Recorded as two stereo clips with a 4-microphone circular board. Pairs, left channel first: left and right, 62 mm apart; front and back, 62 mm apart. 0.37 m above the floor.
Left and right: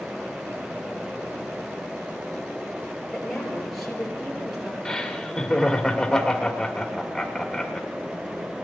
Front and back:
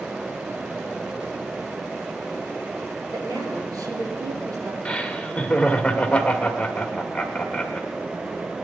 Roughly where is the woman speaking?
Behind.